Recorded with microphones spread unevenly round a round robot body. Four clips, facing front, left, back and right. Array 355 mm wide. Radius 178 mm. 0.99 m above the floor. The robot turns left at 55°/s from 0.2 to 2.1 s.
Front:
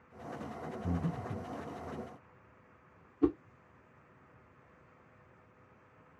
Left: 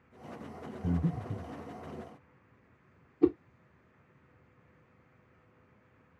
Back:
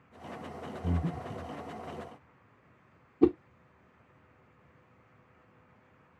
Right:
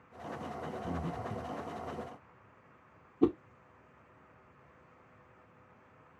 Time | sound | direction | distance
0.8 | breathing | 125° left | 0.6 m
3.2 | a whoosh | 160° right | 0.7 m